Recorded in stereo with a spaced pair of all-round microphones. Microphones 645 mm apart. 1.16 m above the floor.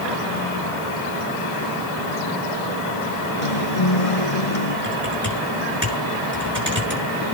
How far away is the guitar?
About 2 m.